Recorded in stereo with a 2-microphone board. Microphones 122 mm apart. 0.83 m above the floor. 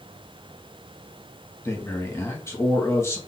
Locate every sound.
1.6 s a man speaking: 20° left (ahead or behind), 1.0 m